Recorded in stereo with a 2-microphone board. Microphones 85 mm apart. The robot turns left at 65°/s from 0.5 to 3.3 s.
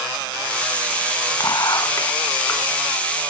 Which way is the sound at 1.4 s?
105° left.